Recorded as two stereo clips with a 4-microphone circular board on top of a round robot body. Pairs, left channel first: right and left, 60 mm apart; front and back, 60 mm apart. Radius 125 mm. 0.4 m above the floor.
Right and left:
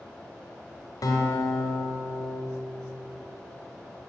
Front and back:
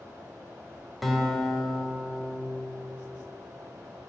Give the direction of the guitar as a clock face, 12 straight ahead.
3 o'clock.